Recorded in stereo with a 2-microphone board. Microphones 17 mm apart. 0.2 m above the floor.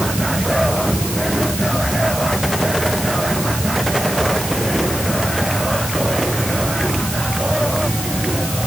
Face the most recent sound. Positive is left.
No sound to turn to.